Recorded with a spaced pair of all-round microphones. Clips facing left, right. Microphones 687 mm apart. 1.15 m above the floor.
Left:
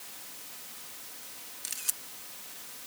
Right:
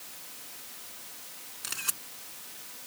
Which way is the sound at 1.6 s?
75° right (ahead or behind).